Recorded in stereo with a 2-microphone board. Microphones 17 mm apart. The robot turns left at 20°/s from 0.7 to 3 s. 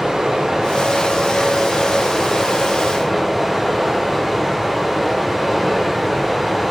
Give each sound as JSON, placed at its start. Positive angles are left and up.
{"t": 0.0, "sound": "running water", "azimuth_deg": -125, "distance_m": 1.0}